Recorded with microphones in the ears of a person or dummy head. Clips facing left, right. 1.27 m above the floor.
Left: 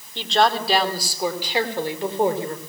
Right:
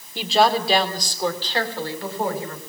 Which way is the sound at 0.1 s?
10° right (ahead or behind).